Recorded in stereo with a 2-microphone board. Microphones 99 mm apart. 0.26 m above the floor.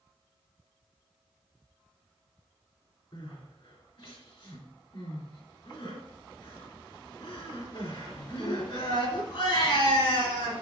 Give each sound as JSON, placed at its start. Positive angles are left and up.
{"t": 3.1, "sound": "crying", "side_deg": 65, "distance_m": 3.0}